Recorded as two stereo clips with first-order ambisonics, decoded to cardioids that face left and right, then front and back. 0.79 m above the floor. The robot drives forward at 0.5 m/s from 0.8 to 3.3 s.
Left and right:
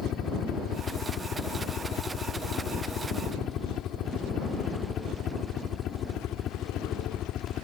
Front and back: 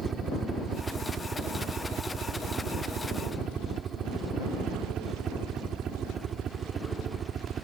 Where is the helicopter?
125° left; by 7.7 s 130° left.